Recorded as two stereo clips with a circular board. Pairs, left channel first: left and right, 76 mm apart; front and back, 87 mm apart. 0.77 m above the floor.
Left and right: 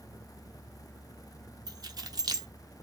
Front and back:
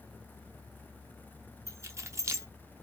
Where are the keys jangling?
120° right, 0.7 m.